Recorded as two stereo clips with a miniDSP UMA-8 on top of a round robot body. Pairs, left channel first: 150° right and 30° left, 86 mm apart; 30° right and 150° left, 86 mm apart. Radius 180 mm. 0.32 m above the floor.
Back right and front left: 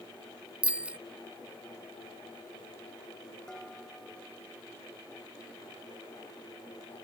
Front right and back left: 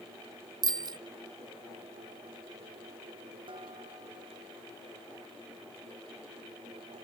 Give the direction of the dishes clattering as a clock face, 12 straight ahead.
8 o'clock.